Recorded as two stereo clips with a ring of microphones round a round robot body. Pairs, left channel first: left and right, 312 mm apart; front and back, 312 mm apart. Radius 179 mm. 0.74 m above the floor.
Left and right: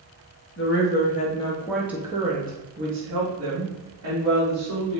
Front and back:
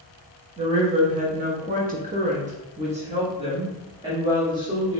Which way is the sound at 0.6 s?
115° left.